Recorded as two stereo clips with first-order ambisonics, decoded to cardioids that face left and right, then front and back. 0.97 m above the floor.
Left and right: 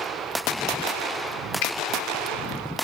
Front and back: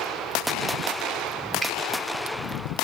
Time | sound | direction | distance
1.6 | a finger snap | 100° left | 2 m